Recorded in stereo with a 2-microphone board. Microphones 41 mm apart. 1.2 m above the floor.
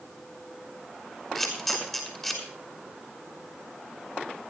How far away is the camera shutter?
About 5.5 m.